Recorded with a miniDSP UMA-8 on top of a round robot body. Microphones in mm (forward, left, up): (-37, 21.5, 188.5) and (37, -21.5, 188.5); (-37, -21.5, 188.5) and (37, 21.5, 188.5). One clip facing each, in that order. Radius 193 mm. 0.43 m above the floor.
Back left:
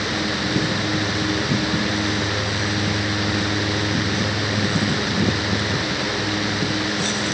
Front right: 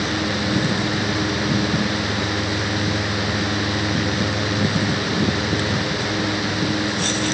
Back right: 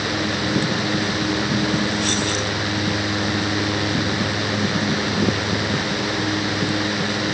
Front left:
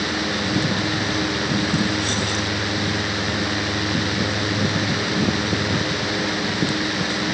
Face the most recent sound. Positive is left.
No sound to turn to.